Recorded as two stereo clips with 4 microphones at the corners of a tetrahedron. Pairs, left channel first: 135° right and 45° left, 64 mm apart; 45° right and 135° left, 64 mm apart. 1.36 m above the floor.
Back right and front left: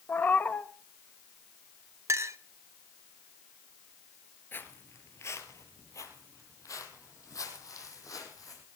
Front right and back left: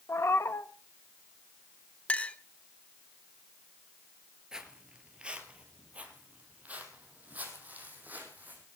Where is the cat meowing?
80° right, 0.9 m.